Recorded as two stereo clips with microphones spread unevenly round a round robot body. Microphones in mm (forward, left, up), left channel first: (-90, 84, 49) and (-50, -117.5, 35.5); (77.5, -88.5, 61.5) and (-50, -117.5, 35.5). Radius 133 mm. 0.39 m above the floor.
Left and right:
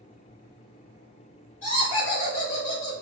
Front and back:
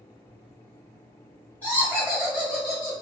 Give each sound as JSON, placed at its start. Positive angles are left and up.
{"t": 1.6, "sound": "laughter", "azimuth_deg": 100, "distance_m": 1.8}